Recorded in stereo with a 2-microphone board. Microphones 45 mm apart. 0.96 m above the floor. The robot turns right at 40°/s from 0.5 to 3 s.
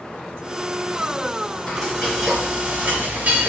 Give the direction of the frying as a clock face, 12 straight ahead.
6 o'clock.